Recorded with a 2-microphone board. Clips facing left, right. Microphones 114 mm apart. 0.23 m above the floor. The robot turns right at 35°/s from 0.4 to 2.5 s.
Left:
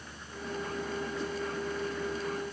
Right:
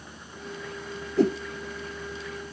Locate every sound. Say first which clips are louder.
1.2 s a whoosh: right 13 dB; 85° right; by 1.4 s 80° right